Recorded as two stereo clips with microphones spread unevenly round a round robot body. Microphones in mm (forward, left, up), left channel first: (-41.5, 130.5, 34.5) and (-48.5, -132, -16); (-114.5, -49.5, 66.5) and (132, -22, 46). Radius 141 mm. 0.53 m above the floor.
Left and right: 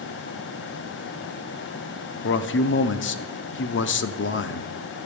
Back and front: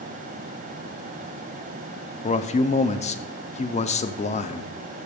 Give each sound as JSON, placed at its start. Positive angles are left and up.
{"t": 2.2, "sound": "a man speaking", "azimuth_deg": 130, "distance_m": 0.8}